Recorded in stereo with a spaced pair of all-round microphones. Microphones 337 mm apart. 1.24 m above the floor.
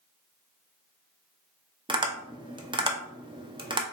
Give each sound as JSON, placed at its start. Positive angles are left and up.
{"t": 1.9, "sound": "tapping", "side_deg": -15, "distance_m": 0.5}